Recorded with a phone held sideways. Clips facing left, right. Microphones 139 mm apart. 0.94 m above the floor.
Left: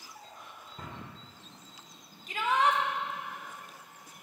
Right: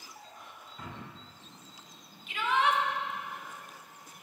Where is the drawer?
45° left (ahead or behind), 1.3 m.